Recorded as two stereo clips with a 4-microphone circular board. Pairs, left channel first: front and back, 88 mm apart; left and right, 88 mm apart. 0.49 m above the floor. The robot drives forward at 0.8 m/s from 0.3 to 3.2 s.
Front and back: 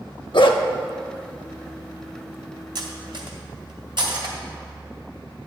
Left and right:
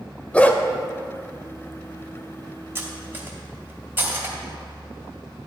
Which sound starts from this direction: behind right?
Cutlery clinking, at 2.8 s.